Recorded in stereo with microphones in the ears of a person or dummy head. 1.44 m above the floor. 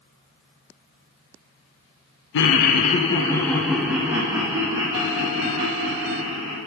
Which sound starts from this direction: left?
Laughter, at 2.3 s.